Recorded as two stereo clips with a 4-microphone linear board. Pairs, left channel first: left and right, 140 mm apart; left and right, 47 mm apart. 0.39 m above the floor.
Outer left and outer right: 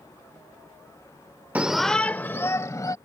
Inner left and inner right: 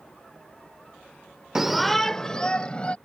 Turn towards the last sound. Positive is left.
turn(degrees=25)  # may be behind; listen again after turning